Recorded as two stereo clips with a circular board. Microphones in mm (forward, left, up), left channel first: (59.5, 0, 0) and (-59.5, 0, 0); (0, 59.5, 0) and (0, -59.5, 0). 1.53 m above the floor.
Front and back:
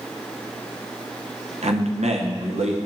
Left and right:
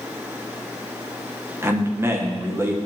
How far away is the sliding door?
I don't hear a sliding door.